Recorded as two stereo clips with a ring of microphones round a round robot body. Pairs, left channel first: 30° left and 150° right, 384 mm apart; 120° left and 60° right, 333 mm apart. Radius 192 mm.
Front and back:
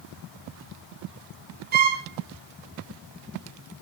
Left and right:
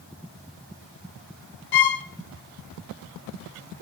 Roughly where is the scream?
I don't hear a scream.